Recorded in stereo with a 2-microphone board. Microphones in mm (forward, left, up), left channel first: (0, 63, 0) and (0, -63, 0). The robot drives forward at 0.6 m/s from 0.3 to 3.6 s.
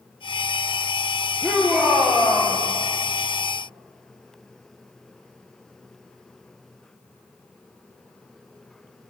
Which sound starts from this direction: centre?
A shout, at 1.4 s.